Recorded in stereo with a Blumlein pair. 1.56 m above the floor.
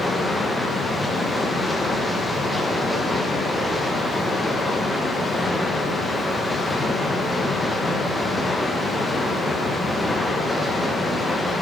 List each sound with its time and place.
0.0 s running water: 5° left, 1.2 m